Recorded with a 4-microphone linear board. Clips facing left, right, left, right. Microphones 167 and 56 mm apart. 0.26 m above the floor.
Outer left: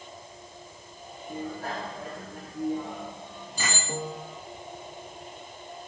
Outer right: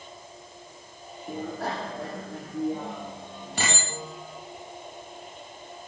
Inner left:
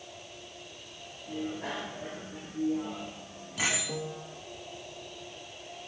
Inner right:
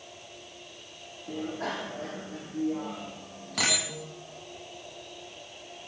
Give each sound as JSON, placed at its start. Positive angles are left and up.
{"t": 1.3, "sound": "a bicycle bell", "side_deg": -80, "distance_m": 7.5}
{"t": 3.9, "sound": "a piano", "side_deg": 40, "distance_m": 3.5}